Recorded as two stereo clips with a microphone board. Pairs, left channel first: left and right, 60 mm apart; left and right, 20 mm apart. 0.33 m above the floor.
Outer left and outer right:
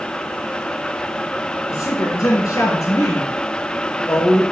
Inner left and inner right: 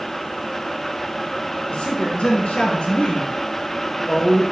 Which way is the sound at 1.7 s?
70° left (ahead or behind).